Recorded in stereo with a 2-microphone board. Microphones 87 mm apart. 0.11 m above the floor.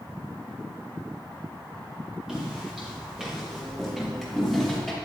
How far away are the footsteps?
About 6 m.